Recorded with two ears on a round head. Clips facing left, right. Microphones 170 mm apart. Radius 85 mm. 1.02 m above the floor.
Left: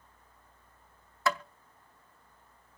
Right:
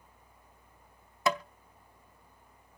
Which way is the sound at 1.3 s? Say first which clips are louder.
Right 1 dB; 15° right (ahead or behind).